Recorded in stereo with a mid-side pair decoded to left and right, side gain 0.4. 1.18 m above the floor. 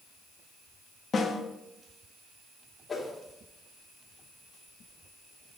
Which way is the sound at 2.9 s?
30° left.